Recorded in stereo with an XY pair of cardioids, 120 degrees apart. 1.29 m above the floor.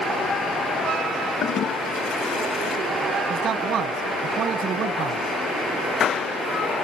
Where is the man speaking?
60° right, 0.8 m.